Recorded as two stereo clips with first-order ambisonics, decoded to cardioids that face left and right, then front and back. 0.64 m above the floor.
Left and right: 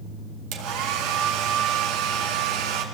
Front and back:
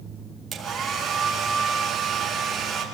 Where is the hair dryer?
110° right, 3.5 m.